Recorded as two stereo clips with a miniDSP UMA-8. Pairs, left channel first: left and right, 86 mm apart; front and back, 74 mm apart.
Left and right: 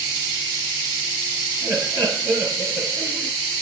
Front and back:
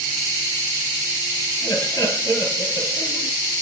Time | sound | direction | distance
1.6 | laughter | 35° right | 3.5 m